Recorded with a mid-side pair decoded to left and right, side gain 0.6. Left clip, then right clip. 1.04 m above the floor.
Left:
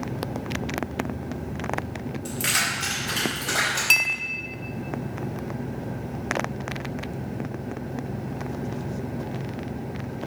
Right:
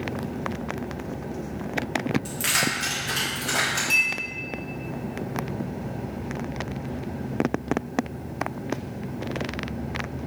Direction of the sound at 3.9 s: 50° left.